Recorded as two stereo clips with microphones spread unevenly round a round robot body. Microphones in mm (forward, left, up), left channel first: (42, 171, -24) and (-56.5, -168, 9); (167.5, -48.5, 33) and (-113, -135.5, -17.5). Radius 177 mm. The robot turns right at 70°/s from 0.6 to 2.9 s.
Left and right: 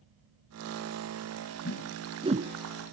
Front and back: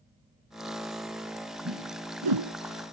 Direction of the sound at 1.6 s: 135° left.